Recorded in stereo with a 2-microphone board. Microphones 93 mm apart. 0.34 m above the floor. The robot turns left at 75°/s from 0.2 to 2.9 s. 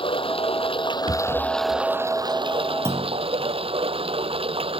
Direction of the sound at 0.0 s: 110° left.